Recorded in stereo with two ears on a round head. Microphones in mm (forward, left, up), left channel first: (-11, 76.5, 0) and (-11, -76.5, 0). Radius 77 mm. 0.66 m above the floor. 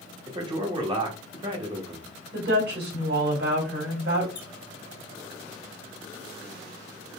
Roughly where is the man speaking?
Right.